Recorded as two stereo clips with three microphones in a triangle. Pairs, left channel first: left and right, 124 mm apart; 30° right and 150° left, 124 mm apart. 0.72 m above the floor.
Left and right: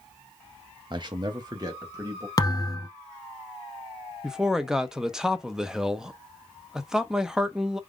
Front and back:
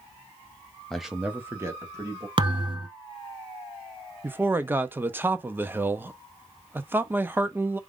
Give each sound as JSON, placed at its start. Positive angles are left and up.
{"t": 0.9, "sound": "a man speaking", "azimuth_deg": -110, "distance_m": 0.5}
{"t": 2.4, "sound": "a thud", "azimuth_deg": 135, "distance_m": 0.9}
{"t": 4.2, "sound": "a man speaking", "azimuth_deg": -165, "distance_m": 0.6}